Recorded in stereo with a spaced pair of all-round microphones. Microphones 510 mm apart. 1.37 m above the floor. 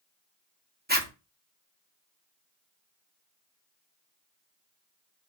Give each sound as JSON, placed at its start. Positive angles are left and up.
{"t": 0.9, "sound": "a zipper", "side_deg": -20, "distance_m": 0.9}